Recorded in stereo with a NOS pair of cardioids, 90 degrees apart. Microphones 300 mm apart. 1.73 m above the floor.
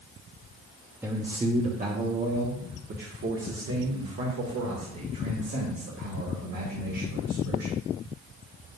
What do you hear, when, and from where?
1.0 s a man speaking: 5° right, 1.0 m; by 7.8 s 65° right, 4.5 m